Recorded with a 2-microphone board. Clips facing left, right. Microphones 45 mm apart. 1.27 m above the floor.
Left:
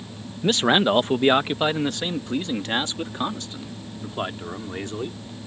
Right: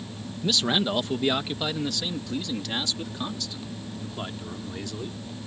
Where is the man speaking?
40° left (ahead or behind); by 5.5 s 35° left (ahead or behind).